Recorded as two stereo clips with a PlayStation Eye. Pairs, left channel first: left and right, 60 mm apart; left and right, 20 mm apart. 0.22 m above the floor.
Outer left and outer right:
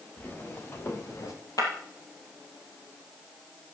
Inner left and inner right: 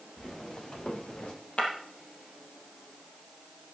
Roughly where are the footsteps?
Left.